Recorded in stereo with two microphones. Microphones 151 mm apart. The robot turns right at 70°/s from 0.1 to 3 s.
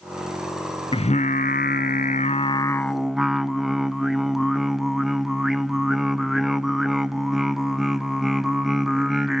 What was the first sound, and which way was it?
Singing, 35° left.